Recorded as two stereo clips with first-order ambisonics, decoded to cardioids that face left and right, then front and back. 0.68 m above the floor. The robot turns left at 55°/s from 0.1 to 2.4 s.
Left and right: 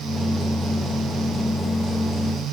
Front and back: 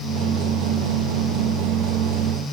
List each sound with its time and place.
Only background noise.